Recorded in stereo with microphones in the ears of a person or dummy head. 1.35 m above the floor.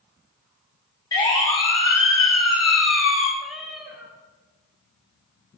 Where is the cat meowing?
5° right (ahead or behind), 3.5 m.